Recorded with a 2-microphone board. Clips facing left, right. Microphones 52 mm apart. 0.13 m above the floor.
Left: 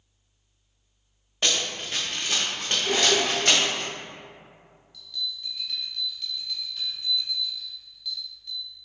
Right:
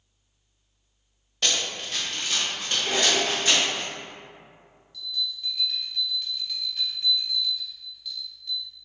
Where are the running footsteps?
20° left (ahead or behind), 0.8 m; by 3.8 s 50° left (ahead or behind), 1.8 m.